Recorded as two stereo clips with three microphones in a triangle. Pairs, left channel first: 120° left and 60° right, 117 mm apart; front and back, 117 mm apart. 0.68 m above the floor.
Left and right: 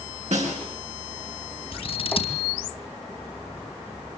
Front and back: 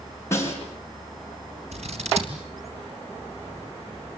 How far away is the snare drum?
About 6 m.